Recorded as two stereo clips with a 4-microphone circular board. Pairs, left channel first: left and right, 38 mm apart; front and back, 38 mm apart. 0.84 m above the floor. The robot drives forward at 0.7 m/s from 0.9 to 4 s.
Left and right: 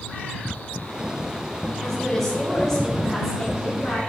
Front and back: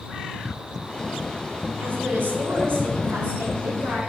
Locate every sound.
1.8 s a woman speaking: 165° left, 3.5 m; by 4.0 s 170° left, 5 m